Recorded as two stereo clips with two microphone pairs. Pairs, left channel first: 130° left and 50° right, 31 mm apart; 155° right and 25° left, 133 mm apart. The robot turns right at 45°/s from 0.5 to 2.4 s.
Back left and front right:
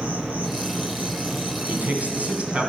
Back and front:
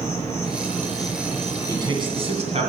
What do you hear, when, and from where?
0.0 s an insect: 90° right, 4.5 m; by 2.7 s 5° right, 4.5 m
1.7 s a man speaking: 40° right, 2.5 m; by 2.7 s 5° right, 2.5 m